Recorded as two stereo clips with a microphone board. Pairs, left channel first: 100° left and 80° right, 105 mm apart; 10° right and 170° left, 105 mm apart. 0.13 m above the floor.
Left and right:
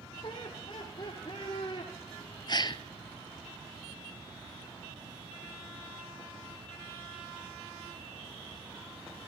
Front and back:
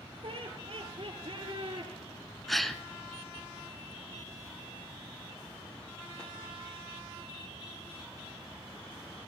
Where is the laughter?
140° left, 5 m.